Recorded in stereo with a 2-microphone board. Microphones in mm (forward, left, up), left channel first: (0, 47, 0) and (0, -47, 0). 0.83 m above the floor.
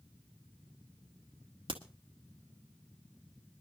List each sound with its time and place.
1.7 s a crack: 60° right (ahead or behind), 1.6 m